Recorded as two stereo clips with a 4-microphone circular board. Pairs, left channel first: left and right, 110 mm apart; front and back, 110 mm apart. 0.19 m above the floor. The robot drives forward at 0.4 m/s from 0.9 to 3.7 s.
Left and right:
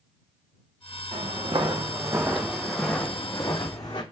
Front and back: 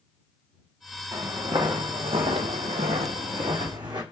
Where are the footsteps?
125° right, 0.9 m; by 4.0 s 135° left, 0.8 m.